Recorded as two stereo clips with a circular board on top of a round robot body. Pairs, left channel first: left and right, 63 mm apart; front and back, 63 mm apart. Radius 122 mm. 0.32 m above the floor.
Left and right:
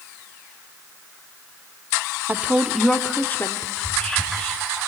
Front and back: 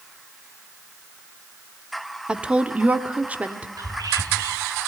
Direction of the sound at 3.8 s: 165° left.